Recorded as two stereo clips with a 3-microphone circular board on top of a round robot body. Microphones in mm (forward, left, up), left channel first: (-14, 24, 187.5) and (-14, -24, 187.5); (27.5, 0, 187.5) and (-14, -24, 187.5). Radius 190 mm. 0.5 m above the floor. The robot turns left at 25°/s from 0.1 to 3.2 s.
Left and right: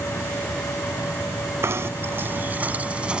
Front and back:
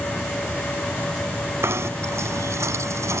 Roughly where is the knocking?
Behind right.